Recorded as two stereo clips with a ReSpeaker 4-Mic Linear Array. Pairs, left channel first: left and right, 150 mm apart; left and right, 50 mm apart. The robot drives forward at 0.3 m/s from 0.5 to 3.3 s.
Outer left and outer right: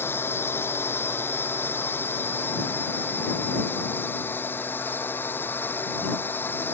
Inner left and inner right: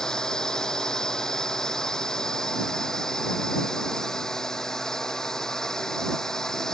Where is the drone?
15° left (ahead or behind).